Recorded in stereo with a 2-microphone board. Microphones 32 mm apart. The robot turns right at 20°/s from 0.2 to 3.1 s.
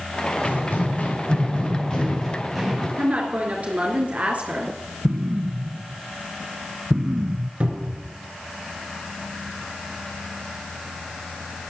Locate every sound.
0.5 s running footsteps: 75° left (ahead or behind), 4.5 m; by 2.9 s 10° right (ahead or behind), 3 m
3.0 s a woman speaking: 50° right (ahead or behind), 3 m
5.0 s an explosion: 25° right (ahead or behind), 0.5 m
7.6 s a cupboard door: 45° right (ahead or behind), 3.5 m